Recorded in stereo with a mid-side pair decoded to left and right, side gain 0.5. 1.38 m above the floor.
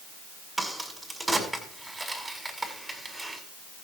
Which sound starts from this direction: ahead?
A crack, at 0.6 s.